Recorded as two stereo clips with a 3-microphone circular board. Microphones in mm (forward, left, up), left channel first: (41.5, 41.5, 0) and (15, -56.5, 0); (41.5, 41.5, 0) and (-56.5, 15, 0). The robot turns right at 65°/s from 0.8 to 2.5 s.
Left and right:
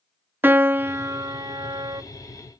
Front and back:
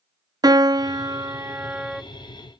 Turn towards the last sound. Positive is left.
turn(degrees=-50)